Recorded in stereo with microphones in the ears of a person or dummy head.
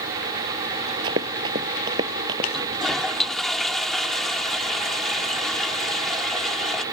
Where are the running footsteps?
20° right (ahead or behind).